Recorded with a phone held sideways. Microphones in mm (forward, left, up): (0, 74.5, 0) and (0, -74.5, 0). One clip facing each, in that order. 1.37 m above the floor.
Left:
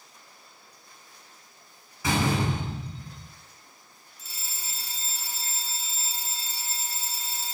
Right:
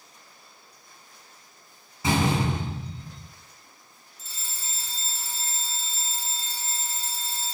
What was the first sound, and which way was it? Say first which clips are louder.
A door slam: right 2 dB; 20° right (ahead or behind).